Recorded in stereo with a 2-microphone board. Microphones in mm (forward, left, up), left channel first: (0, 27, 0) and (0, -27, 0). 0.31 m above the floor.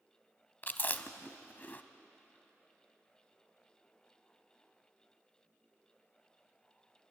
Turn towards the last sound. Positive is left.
turn(degrees=35)  # may be behind; listen again after turning